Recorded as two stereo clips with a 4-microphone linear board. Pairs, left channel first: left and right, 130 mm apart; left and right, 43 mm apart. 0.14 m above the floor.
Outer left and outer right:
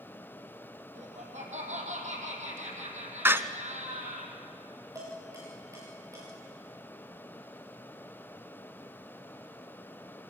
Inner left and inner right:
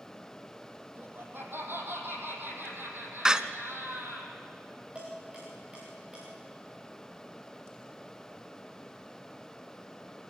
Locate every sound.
0.9 s laughter: 65° right (ahead or behind), 5 m
3.2 s a door slam: 20° right (ahead or behind), 0.7 m
5.0 s dishes clattering: 25° right (ahead or behind), 9 m